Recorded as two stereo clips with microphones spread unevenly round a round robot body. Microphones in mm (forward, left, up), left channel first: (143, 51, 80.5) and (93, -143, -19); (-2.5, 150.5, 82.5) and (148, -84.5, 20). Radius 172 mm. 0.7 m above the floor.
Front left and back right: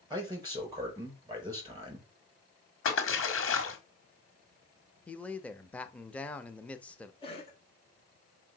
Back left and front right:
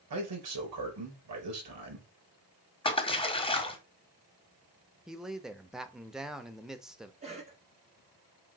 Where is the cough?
5° right, 1.9 m.